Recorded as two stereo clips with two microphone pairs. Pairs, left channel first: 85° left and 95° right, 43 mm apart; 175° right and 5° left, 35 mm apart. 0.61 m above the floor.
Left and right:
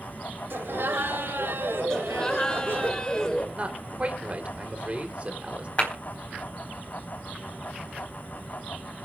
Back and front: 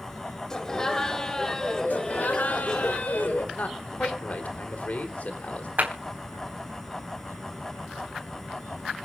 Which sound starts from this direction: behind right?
A man speaking, at 3.5 s.